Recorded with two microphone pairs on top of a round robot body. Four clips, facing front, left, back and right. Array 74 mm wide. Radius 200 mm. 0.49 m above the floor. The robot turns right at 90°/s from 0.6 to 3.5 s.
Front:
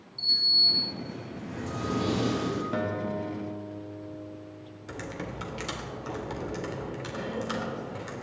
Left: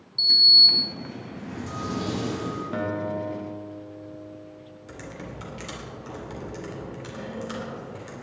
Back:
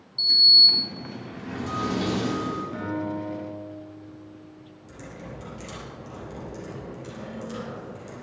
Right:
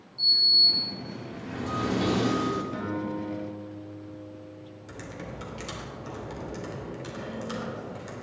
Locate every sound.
0.2 s a sliding door: 110° left, 2 m; by 2.6 s 70° right, 2 m
2.7 s a guitar: 40° left, 2 m; by 5.2 s 110° left, 2 m
4.9 s typing on a keyboard: 5° left, 3 m